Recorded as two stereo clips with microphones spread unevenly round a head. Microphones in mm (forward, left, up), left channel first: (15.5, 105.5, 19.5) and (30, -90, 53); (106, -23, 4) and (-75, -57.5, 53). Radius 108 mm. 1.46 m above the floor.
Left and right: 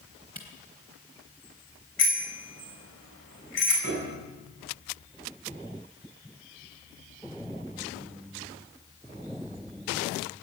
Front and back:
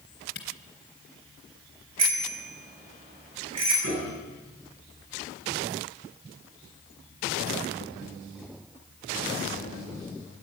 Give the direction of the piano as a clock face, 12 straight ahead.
7 o'clock.